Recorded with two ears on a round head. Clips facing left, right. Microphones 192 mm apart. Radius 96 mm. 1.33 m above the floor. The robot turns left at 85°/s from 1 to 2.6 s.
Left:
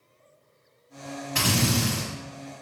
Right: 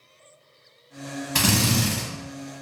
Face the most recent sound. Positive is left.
turn(degrees=-165)